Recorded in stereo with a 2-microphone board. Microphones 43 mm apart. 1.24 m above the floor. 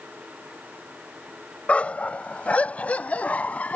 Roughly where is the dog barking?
Left.